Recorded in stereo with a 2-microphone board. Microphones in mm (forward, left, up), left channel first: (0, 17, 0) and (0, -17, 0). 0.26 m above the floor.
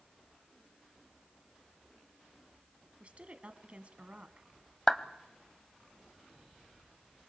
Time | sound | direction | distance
3.0 | a woman speaking | 40° right (ahead or behind) | 1.6 m
4.9 | a clap | 20° left (ahead or behind) | 1.0 m